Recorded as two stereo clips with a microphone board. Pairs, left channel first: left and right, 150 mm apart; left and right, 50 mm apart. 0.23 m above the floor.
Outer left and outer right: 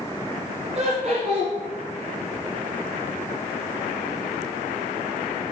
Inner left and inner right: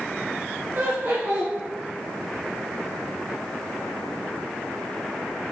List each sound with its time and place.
0.8 s laughter: 50° right (ahead or behind), 1.8 m